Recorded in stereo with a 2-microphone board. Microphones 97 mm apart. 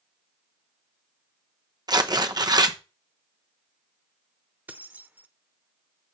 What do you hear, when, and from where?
1.9 s tearing paper: 45° right (ahead or behind), 0.7 m
4.7 s keys jangling: 15° right (ahead or behind), 0.7 m